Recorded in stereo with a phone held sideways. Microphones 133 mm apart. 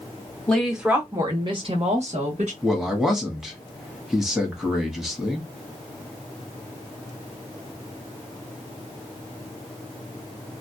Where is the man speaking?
5° right (ahead or behind), 1.2 m.